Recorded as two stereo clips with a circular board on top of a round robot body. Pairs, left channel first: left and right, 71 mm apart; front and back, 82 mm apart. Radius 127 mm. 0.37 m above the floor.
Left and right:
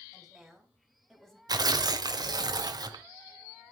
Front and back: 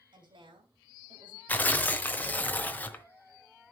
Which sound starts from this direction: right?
Tearing paper, at 1.5 s.